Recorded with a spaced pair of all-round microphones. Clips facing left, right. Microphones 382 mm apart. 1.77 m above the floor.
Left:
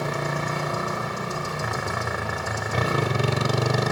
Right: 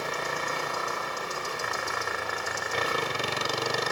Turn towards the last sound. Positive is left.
turn(degrees=75)  # may be behind; listen again after turning